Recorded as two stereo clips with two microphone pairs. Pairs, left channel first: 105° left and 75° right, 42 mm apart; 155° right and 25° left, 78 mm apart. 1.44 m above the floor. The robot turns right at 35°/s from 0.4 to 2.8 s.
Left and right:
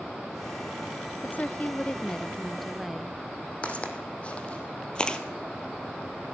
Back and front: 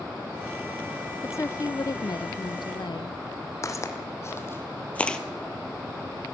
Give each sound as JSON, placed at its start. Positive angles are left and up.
{"t": 1.2, "sound": "a woman speaking", "azimuth_deg": 145, "distance_m": 0.5}
{"t": 3.6, "sound": "footsteps", "azimuth_deg": 160, "distance_m": 3.0}